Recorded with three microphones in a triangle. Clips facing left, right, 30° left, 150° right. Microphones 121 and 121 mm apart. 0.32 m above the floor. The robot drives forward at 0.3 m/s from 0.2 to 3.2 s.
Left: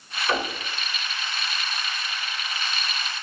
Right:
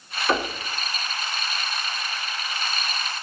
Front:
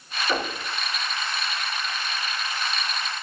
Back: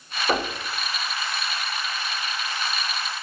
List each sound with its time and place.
0.3 s knocking: 155° right, 1.8 m